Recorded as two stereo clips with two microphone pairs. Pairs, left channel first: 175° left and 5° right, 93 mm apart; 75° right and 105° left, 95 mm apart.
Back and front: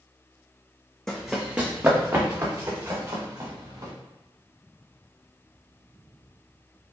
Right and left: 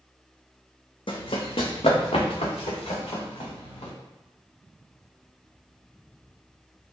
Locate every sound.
1.1 s running footsteps: 100° right, 0.7 m; by 3.9 s 55° right, 2 m